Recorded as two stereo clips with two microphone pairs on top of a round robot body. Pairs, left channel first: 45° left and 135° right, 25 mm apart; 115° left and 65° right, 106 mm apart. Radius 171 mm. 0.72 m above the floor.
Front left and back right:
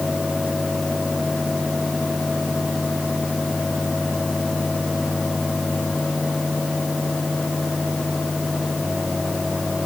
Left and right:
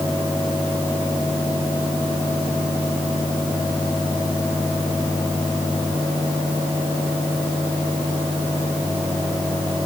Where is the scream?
I don't hear a scream.